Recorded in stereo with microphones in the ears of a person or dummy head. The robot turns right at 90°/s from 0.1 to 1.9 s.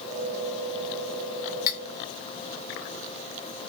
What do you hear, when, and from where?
1.7 s cutlery clinking: 45° left (ahead or behind), 3 m; by 1.8 s 60° left (ahead or behind), 3 m